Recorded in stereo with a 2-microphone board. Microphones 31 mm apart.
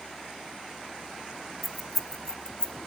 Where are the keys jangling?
5° right (ahead or behind), 0.7 m; by 2.8 s 30° left (ahead or behind), 0.8 m.